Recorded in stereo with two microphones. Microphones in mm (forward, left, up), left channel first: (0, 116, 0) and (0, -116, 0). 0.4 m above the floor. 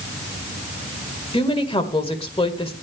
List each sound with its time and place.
1.3 s a woman speaking: 25° left (ahead or behind), 1.8 m